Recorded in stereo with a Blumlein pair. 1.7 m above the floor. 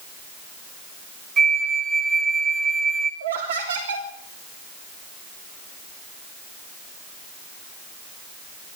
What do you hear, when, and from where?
1.4 s a flute: 25° right, 2.5 m
3.2 s laughter: 65° right, 3.5 m